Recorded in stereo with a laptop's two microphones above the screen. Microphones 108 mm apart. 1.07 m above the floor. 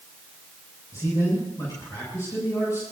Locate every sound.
0.9 s a man speaking: 30° left (ahead or behind), 7.5 m